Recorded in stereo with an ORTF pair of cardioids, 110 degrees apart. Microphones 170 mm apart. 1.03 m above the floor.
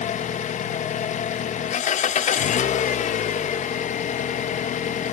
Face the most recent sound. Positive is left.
turn(degrees=50)